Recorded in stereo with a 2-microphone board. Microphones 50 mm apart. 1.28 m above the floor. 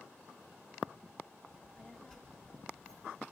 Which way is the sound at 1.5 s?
10° left (ahead or behind).